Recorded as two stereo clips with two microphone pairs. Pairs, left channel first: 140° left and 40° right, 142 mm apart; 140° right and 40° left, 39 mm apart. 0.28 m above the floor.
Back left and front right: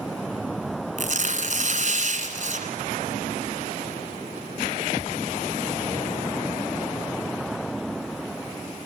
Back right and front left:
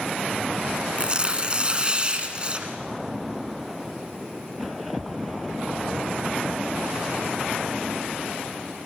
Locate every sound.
1.0 s tearing paper: 20° right, 1.8 m